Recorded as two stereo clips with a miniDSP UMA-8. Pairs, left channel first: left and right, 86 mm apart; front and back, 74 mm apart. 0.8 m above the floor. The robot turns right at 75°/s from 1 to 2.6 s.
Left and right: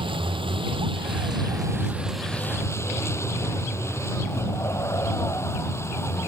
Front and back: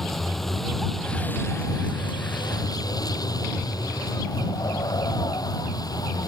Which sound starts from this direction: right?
A vehicle, at 0.0 s.